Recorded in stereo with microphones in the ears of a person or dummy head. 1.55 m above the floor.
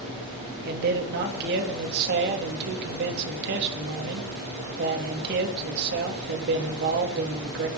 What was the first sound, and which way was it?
A man speaking, 55° right (ahead or behind).